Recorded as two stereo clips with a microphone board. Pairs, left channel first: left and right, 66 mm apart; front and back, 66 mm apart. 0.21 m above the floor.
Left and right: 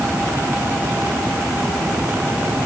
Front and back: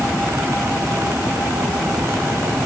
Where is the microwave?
I don't hear a microwave.